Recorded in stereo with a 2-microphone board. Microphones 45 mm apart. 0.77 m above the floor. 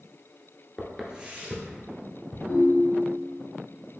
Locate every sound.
0.8 s footsteps: 10° left (ahead or behind), 0.7 m; by 2.4 s 55° right (ahead or behind), 1.9 m
2.5 s a ringtone: 5° left (ahead or behind), 1.5 m